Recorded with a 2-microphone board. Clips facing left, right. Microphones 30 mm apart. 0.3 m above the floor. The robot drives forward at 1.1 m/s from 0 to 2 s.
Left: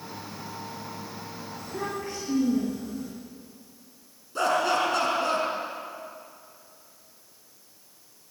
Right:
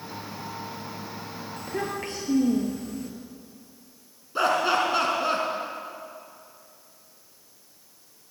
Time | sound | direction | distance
1.6 | a child speaking | 80° right | 5 m
4.3 | laughter | 20° right (ahead or behind) | 4 m